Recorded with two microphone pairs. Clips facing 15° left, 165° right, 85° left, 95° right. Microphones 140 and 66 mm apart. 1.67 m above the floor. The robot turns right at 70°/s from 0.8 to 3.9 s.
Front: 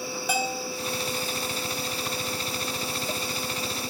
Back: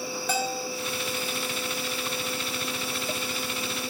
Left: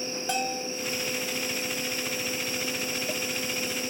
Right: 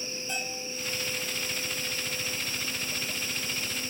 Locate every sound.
0.3 s a bell: 95° left, 1.0 m